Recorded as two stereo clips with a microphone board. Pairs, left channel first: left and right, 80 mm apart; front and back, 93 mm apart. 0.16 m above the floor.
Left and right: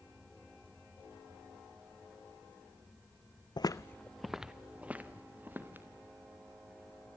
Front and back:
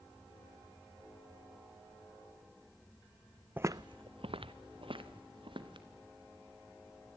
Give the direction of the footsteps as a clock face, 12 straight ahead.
8 o'clock.